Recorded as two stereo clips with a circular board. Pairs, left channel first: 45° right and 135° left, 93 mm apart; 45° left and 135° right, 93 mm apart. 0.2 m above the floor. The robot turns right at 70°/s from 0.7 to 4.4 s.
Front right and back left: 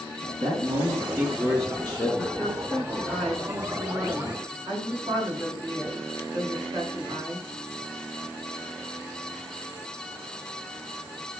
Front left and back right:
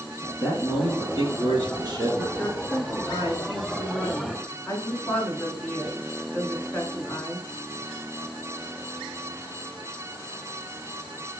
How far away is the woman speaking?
About 2.5 m.